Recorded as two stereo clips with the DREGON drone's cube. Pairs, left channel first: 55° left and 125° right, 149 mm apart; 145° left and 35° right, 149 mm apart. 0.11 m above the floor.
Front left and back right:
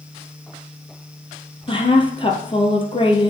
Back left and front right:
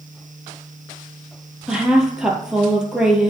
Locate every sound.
1.7 s a woman speaking: 50° left, 1.3 m